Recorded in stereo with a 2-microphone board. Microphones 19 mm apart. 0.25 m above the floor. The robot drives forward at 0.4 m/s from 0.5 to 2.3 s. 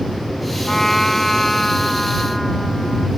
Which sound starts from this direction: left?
A trumpet, at 0.7 s.